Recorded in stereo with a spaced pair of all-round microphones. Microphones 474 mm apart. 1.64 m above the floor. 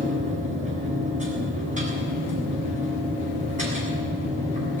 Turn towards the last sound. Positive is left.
turn(degrees=-15)  # may be behind; listen again after turning